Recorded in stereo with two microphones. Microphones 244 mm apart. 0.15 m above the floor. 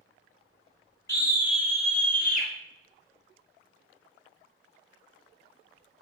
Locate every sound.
1.1 s a scream: 10° left (ahead or behind), 1.8 m; by 2.5 s 40° left (ahead or behind), 2 m